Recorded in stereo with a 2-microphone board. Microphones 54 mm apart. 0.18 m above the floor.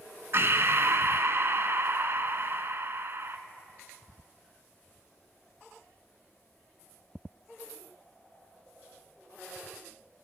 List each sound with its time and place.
0.3 s breathing: 50° right (ahead or behind), 0.8 m